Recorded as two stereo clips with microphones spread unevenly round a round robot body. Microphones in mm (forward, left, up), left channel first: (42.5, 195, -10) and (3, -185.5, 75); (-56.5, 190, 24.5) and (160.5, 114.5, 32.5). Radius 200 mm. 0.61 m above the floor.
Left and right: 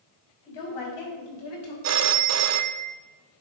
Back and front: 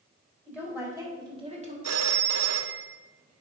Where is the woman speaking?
65° left, 4 m; by 1.7 s 35° left, 2.5 m.